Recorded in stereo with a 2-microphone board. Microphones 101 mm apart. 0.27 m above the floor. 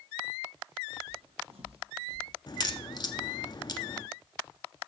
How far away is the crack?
About 1.0 m.